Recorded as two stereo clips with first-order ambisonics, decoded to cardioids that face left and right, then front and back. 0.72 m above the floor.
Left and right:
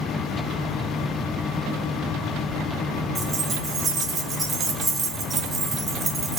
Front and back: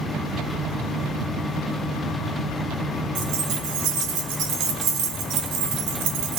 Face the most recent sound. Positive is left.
turn(degrees=-165)